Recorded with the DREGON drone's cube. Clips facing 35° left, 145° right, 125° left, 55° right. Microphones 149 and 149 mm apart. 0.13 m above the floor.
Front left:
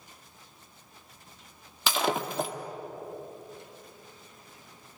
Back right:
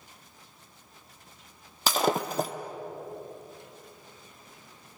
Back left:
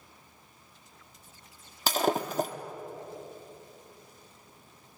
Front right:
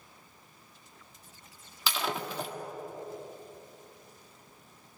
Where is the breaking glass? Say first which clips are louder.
Back right 2 dB, back left 6 dB; 170° left, 1.6 m.